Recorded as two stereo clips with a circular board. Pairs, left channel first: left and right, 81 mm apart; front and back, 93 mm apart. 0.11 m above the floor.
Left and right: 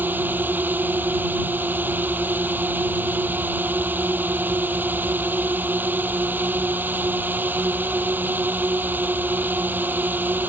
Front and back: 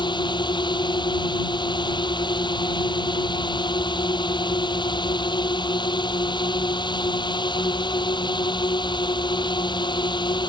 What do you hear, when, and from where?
0.0 s a drone: 25° right